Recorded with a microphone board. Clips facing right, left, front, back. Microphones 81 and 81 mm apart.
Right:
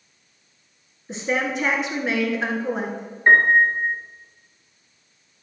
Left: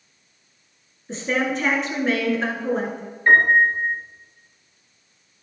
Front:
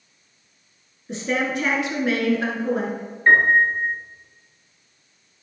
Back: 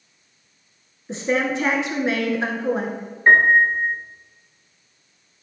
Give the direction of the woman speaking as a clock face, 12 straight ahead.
5 o'clock.